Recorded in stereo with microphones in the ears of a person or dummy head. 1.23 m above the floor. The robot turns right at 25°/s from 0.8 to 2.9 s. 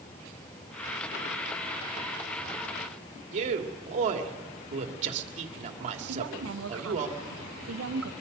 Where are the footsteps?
No footsteps in this recording.